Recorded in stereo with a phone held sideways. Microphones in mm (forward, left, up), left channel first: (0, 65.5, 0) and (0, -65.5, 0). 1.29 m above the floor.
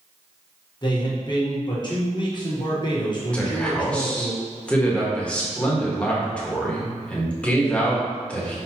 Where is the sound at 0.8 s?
35° left (ahead or behind), 1.2 m.